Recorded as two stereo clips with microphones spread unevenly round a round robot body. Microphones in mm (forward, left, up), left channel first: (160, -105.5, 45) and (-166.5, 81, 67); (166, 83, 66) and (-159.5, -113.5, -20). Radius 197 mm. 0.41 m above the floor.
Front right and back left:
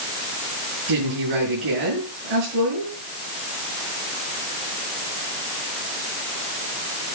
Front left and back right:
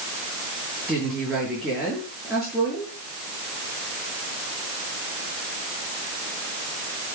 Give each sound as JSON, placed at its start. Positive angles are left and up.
{"t": 0.9, "sound": "a woman speaking", "azimuth_deg": 125, "distance_m": 7.5}